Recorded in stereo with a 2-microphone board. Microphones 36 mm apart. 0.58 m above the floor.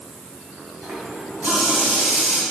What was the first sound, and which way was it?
A running tap, 45° right (ahead or behind).